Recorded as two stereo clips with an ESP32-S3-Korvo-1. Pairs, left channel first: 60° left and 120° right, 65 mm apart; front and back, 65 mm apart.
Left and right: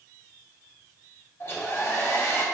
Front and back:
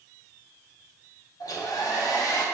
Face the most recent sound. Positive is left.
turn(degrees=15)